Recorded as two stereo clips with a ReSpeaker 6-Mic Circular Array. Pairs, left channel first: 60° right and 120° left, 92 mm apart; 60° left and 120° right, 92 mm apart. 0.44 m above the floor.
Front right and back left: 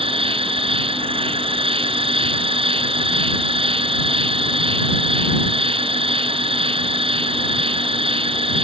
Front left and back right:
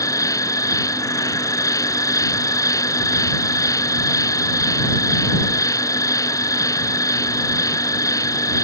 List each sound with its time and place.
0.0 s an insect: 110° left